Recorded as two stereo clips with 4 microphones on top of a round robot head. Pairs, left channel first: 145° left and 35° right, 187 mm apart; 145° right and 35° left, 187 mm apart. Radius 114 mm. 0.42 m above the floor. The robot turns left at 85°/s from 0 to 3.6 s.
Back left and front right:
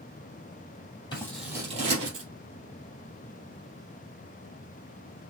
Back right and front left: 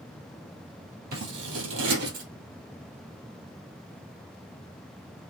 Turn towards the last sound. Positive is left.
turn(degrees=-135)